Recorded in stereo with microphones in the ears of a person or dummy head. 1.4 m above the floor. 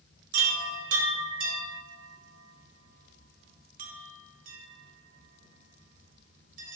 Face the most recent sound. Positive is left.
turn(degrees=-45)  # may be behind; listen again after turning